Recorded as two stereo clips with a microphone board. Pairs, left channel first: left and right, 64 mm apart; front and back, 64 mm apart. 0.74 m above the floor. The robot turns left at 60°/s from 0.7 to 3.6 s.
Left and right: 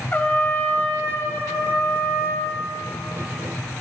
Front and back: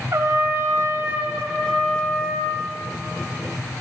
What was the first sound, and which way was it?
A trumpet, 145° left.